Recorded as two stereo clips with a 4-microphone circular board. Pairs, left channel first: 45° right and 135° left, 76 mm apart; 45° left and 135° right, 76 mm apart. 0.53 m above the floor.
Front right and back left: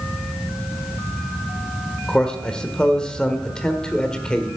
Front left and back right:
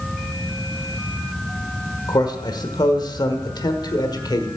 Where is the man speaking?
35° left, 1.4 m.